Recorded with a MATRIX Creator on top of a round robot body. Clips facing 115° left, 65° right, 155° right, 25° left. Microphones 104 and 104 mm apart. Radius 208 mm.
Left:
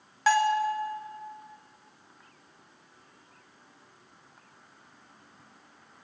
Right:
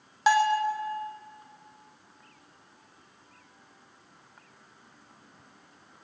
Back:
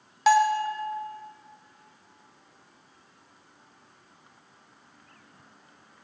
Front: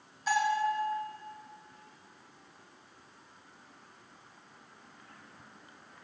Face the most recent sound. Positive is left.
turn(degrees=-140)